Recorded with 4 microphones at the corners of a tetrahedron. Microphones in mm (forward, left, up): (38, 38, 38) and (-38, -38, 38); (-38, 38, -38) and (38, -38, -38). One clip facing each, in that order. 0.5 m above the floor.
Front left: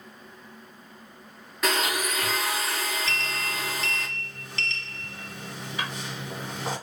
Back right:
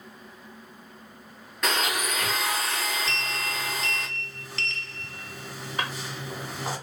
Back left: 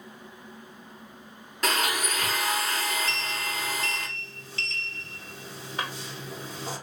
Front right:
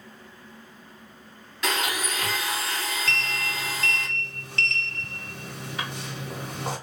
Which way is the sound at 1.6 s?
130° left.